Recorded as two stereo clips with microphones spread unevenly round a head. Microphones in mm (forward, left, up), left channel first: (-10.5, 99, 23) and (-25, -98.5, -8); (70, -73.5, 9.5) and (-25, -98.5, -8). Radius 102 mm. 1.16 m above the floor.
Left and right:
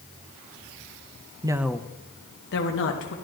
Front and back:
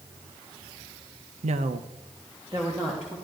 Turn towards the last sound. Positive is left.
turn(degrees=105)